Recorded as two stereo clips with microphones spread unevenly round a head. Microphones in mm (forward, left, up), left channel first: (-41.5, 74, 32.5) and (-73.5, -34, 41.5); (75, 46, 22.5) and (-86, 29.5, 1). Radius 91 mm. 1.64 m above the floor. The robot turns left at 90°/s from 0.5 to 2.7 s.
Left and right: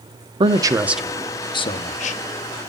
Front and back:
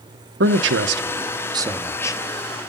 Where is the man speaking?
145° right, 1.0 m; by 2.7 s 15° left, 1.0 m.